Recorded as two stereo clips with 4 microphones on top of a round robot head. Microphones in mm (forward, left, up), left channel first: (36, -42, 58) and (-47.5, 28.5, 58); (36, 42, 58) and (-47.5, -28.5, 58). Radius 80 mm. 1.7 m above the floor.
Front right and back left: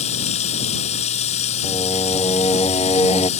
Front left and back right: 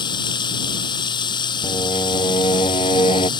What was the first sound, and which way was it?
Running water, 10° right.